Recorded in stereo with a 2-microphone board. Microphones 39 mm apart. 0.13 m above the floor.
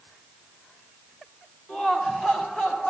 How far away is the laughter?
About 7 m.